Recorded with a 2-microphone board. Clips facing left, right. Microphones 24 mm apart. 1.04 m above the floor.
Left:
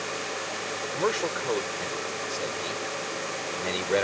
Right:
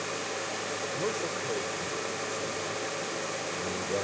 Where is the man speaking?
85° left.